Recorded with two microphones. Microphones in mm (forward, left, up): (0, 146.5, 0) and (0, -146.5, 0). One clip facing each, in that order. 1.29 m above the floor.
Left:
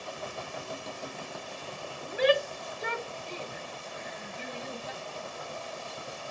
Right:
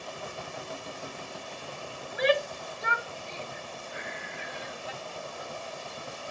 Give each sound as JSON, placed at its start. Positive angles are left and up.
{"t": 2.0, "sound": "a shout", "side_deg": 35}
{"t": 3.9, "sound": "breathing", "side_deg": -75}